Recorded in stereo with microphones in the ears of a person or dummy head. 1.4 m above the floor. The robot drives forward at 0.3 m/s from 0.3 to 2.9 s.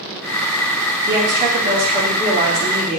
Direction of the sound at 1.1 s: 40° right (ahead or behind).